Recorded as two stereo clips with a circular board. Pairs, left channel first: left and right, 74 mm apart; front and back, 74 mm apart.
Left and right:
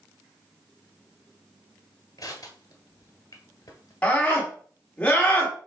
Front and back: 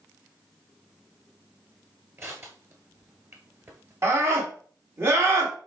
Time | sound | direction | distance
2.2 | crushing | 125° left | 1.6 m
4.0 | a scream | 155° left | 1.6 m